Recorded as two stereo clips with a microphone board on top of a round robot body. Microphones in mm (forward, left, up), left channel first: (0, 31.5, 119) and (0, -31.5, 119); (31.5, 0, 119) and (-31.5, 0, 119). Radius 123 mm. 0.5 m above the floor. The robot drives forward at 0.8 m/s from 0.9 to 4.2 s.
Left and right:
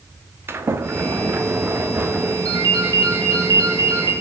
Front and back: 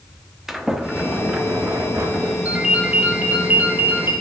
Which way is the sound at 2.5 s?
110° right.